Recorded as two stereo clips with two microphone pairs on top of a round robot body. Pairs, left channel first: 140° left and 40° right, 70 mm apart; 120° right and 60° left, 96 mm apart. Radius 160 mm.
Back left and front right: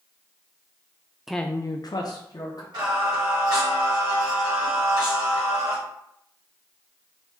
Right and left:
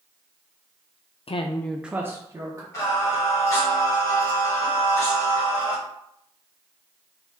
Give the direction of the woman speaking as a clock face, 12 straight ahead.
4 o'clock.